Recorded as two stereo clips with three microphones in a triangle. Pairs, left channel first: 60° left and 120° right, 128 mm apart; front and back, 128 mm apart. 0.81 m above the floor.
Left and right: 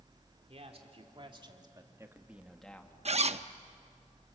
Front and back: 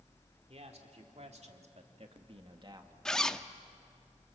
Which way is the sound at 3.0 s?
85° right.